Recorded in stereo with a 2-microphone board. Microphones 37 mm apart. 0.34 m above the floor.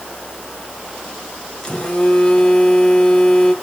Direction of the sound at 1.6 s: 25° left (ahead or behind).